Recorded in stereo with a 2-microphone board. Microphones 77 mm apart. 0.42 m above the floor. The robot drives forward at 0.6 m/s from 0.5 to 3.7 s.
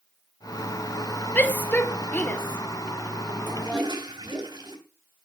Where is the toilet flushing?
65° right (ahead or behind), 3 m.